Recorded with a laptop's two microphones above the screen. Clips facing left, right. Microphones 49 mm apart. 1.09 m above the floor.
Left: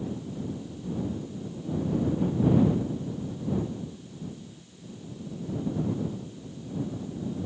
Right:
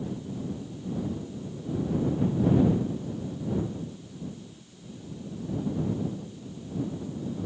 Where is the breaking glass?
I don't hear breaking glass.